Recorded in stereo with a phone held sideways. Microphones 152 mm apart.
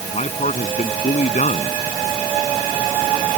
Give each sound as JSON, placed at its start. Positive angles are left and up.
{"t": 0.1, "sound": "a man speaking", "side_deg": 50}